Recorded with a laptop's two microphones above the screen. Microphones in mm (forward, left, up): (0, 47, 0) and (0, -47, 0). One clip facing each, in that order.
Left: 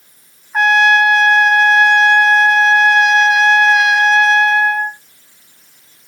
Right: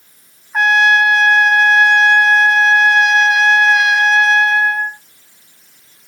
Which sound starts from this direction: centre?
A trumpet, at 0.5 s.